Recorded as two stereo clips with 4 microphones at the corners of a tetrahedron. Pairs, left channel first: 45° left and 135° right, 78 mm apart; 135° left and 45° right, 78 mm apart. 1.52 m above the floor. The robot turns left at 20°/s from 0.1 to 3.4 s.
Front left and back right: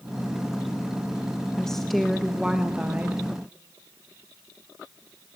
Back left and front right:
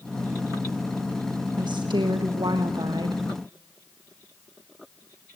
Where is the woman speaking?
35° right, 1.4 m; by 3.2 s 70° right, 1.4 m.